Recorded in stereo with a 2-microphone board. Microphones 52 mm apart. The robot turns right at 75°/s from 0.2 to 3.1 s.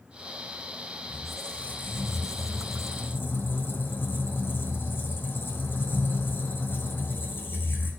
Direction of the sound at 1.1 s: 15° right.